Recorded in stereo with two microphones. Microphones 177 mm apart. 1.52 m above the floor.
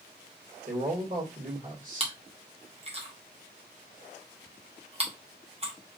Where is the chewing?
35° right (ahead or behind), 0.9 m.